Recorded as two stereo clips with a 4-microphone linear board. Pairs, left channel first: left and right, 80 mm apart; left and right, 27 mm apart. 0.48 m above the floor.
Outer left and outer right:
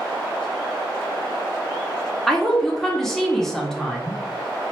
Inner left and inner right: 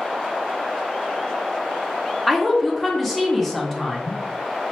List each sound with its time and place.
2.3 s a woman speaking: 5° left (ahead or behind), 0.8 m